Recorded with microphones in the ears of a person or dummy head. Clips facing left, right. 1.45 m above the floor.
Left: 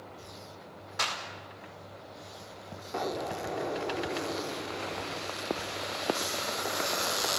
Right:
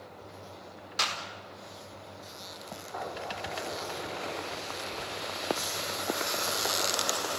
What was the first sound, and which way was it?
A clap, 50° right (ahead or behind).